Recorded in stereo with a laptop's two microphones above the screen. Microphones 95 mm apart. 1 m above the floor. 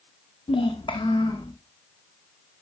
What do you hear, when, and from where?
0.5 s a child speaking: 65° left (ahead or behind), 0.6 m; by 1.5 s 55° left (ahead or behind), 1.3 m